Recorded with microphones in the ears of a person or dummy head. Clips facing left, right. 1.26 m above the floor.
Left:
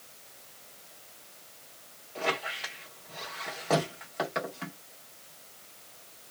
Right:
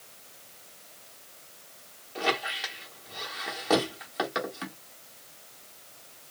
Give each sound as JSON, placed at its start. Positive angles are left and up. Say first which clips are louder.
{"t": 2.1, "sound": "a squeak", "louder": "right 2 dB", "side_deg": -10, "distance_m": 1.0}